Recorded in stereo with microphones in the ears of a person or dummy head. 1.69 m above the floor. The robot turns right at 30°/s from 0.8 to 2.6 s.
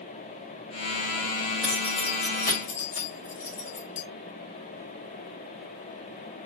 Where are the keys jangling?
25° left (ahead or behind), 1.3 m; by 4.0 s 45° left (ahead or behind), 1.3 m.